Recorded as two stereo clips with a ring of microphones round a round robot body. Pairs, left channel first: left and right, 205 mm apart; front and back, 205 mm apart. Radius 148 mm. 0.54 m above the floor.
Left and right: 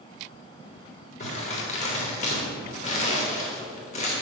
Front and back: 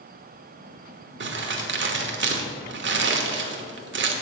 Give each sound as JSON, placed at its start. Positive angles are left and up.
{"t": 1.2, "sound": "crumpling", "azimuth_deg": 155, "distance_m": 1.0}